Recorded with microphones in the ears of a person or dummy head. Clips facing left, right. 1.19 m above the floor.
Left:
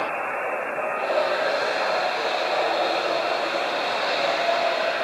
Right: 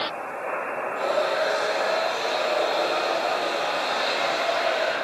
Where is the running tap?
55° right (ahead or behind), 9 m.